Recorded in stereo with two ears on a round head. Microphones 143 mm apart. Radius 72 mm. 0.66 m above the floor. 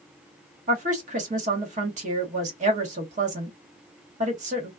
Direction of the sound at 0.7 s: 50° right (ahead or behind).